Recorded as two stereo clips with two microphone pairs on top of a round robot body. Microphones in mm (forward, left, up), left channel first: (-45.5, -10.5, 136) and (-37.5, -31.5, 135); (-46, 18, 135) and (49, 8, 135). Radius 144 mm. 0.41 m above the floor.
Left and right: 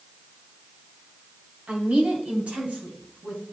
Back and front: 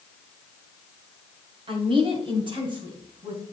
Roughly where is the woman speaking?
Ahead right.